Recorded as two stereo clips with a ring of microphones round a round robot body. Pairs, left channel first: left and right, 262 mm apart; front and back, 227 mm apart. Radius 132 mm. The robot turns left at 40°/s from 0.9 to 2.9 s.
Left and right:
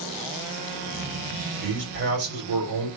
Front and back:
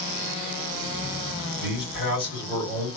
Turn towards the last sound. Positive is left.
turn(degrees=-95)